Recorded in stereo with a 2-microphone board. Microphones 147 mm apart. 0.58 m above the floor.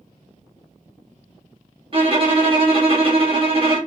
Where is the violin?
40° right (ahead or behind), 1.0 m.